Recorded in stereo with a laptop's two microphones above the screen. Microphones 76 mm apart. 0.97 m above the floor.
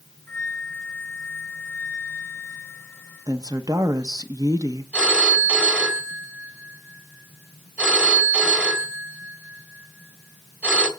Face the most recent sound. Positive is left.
turn(degrees=-20)  # may be behind; listen again after turning